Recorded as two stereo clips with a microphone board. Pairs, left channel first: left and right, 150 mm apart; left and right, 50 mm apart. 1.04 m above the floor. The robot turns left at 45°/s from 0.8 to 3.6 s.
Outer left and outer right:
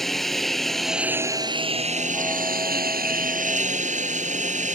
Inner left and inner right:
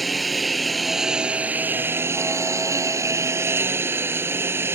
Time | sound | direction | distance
0.0 | a lawn mower | straight ahead | ?